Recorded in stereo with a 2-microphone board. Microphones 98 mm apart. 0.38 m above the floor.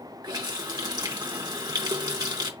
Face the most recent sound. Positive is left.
turn(degrees=-40)  # may be behind; listen again after turning